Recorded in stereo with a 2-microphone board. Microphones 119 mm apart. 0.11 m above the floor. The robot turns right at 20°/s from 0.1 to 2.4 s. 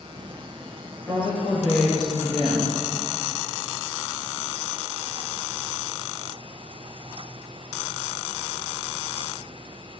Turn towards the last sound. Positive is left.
turn(degrees=25)  # may be behind; listen again after turning